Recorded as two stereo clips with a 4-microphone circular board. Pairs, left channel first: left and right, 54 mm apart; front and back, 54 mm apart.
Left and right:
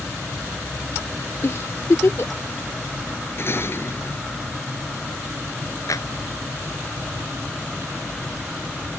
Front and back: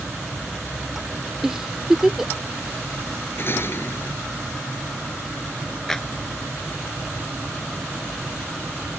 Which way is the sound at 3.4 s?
45° left.